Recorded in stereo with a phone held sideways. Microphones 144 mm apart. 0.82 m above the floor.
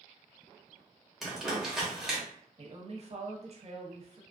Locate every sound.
1.2 s crumpling: centre (ahead or behind), 1.1 m
2.6 s a woman speaking: 45° right (ahead or behind), 0.6 m